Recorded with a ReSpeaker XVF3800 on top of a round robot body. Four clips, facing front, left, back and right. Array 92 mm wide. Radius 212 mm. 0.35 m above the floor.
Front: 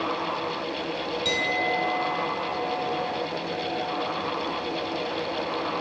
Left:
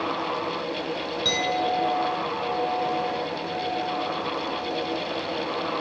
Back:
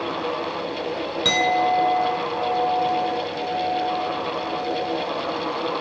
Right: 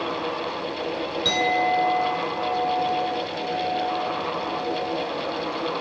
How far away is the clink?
About 4 m.